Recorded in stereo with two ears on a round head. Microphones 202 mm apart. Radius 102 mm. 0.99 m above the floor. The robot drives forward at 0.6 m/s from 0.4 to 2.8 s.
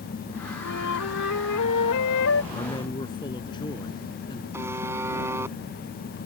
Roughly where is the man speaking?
Centre.